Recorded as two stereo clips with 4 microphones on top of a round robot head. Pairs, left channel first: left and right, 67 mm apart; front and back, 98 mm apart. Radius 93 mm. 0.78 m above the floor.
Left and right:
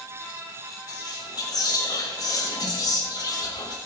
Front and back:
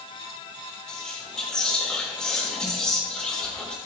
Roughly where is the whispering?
Left.